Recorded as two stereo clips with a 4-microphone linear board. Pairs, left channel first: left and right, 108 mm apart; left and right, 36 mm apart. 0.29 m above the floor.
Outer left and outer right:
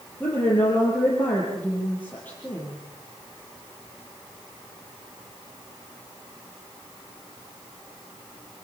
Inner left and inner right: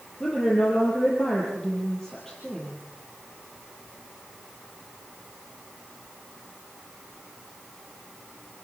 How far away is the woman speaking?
About 6.5 m.